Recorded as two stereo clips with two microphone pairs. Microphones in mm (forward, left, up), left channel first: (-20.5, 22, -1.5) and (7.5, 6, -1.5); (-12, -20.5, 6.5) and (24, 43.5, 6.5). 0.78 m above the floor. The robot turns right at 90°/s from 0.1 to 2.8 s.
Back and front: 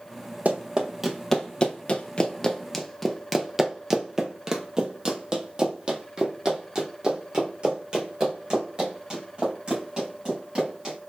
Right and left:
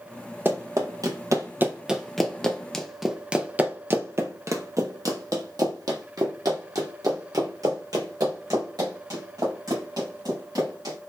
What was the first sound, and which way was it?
Running footsteps, straight ahead.